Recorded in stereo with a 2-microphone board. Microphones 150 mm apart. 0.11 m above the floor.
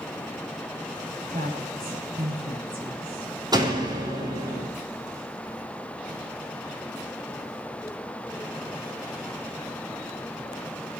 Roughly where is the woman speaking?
Right.